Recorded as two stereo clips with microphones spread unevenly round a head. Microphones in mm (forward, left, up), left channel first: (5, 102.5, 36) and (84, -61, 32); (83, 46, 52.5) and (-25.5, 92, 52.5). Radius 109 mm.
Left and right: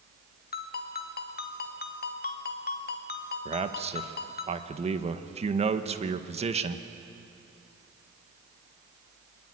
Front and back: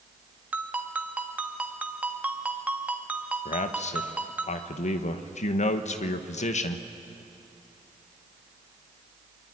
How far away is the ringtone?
About 1.6 m.